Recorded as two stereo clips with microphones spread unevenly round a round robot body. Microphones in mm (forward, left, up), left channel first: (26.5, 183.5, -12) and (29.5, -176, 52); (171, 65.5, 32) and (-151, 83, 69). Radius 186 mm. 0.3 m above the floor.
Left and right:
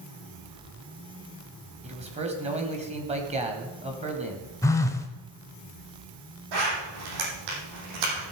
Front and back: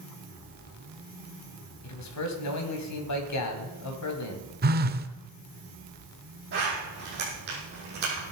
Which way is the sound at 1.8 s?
15° right.